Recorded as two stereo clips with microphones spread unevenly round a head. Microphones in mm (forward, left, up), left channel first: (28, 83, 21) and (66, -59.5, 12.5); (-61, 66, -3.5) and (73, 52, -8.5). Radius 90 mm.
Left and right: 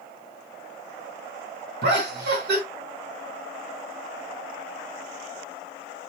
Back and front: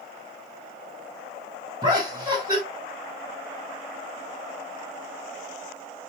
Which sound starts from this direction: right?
Laughter, at 1.8 s.